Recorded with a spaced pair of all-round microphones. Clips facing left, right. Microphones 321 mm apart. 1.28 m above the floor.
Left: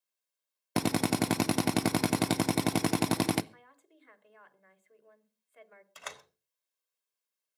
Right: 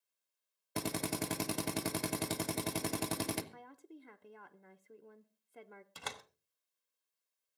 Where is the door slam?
50° right (ahead or behind), 1.5 m.